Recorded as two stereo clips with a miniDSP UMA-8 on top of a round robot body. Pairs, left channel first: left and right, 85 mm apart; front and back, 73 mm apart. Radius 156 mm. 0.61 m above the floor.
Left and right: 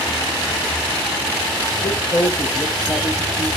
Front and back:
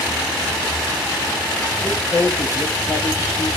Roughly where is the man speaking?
Ahead left.